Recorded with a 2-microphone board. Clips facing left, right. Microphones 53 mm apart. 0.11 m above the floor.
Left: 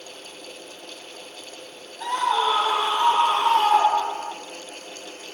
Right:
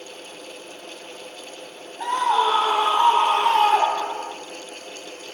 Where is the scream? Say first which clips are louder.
Right 2 dB; 35° right (ahead or behind), 4 m; by 4.3 s 40° right (ahead or behind), 1.5 m.